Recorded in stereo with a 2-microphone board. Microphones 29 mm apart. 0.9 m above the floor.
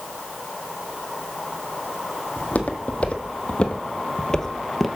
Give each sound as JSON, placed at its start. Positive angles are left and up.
{"t": 2.4, "sound": "footsteps", "side_deg": 55, "distance_m": 1.7}